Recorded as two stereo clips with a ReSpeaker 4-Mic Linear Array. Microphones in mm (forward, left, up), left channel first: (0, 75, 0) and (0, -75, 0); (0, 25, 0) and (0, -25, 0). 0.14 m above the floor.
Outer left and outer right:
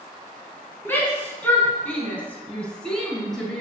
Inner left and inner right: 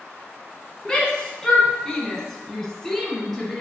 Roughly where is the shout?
Centre.